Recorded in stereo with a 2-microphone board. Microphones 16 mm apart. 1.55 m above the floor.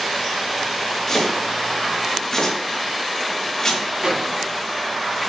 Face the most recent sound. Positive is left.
turn(degrees=-60)  # may be behind; listen again after turning